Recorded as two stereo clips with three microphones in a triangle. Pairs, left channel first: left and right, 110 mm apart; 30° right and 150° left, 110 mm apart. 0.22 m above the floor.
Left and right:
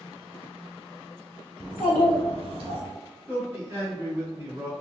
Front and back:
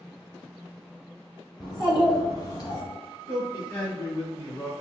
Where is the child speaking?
80° right, 1.7 m.